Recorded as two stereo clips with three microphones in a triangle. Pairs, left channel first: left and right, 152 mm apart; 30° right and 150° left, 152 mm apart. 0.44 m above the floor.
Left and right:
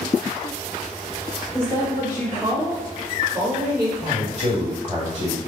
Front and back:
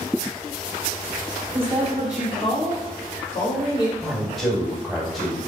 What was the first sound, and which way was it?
A woman speaking, 150° right.